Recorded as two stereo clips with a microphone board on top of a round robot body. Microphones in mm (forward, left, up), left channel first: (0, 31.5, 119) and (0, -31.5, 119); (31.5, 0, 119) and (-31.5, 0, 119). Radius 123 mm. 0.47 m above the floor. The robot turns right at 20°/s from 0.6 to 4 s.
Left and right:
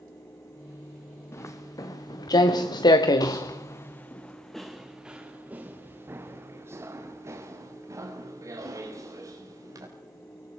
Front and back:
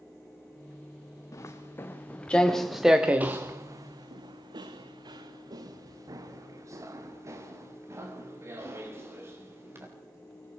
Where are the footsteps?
45° left, 4 m; by 9.8 s 125° right, 7.5 m.